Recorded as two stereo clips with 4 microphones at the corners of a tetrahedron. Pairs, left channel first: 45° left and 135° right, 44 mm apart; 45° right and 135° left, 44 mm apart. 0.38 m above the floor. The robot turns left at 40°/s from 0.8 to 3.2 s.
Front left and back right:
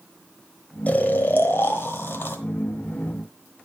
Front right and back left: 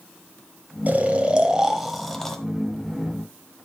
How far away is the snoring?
About 1.2 m.